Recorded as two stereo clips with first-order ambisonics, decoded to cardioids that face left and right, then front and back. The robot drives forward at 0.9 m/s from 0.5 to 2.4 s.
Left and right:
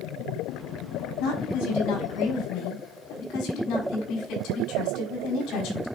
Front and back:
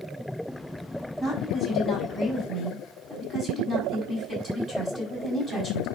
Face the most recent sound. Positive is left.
turn(degrees=105)